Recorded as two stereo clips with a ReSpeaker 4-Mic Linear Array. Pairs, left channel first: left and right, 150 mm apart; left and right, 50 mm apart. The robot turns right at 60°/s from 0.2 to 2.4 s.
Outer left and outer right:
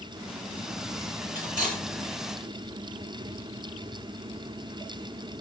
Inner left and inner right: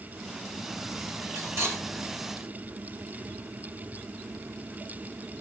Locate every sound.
1.4 s cutlery clinking: 75° right (ahead or behind), 9 m; by 1.8 s 45° right (ahead or behind), 9 m